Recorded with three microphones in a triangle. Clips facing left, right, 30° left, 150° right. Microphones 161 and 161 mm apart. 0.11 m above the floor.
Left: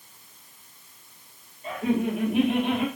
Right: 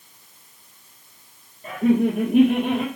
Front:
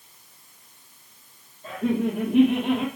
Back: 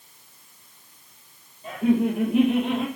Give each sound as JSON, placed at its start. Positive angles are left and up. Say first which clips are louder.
{"t": 1.6, "sound": "laughter", "louder": "right 6 dB, back 3 dB", "azimuth_deg": -65, "distance_m": 2.0}